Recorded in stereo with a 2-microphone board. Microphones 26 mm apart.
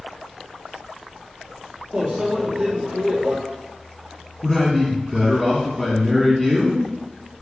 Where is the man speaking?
5° left (ahead or behind), 1.2 m.